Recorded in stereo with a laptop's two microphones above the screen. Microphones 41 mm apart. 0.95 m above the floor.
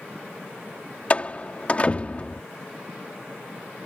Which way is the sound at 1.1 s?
30° left (ahead or behind).